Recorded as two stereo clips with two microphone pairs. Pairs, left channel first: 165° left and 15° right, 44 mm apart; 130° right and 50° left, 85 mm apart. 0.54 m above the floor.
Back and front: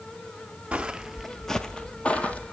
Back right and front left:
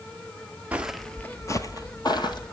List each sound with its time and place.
0.7 s footsteps: 5° left, 0.5 m; by 2.5 s 145° right, 1.1 m